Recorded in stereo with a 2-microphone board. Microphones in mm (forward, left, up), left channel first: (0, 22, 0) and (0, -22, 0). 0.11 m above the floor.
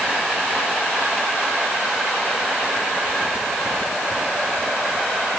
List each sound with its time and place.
Only background noise.